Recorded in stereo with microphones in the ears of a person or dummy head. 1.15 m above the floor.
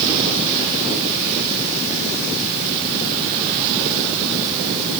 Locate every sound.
Only background noise.